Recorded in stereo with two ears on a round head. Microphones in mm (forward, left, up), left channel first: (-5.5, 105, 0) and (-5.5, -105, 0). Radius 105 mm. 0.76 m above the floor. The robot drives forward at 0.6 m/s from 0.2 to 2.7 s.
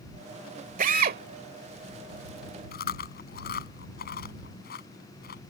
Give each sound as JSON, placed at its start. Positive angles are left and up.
{"t": 0.8, "sound": "a drill", "side_deg": -35}
{"t": 2.7, "sound": "chewing", "side_deg": 45}